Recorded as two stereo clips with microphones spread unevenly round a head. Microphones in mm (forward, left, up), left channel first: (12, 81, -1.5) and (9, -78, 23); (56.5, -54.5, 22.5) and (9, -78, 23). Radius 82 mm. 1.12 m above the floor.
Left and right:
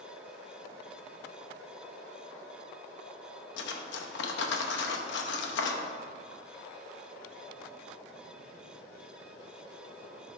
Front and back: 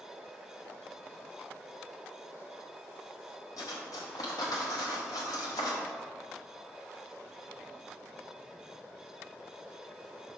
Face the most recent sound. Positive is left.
turn(degrees=70)